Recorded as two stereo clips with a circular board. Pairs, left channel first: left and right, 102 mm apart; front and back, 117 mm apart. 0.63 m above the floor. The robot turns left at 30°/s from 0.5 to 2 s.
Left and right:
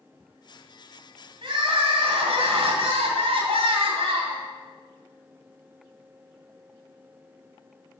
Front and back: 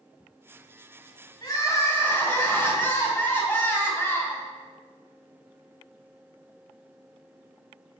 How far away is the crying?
About 2.5 m.